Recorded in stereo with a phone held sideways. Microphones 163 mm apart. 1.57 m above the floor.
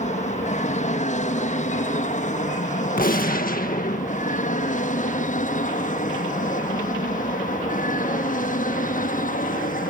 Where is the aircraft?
50° left (ahead or behind); by 9.9 s 55° left (ahead or behind).